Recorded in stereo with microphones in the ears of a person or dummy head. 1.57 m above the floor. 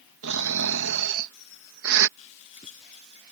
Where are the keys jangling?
35° left (ahead or behind).